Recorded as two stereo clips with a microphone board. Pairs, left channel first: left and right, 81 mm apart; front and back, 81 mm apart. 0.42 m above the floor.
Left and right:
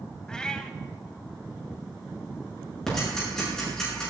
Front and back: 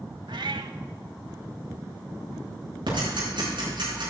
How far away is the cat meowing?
About 0.8 m.